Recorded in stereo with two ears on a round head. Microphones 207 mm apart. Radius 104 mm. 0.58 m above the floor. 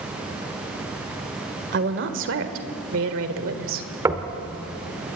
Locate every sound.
1.7 s a woman speaking: 50° right (ahead or behind), 2 m; by 3.9 s 60° right (ahead or behind), 2 m
4.0 s knocking: 15° right (ahead or behind), 1.4 m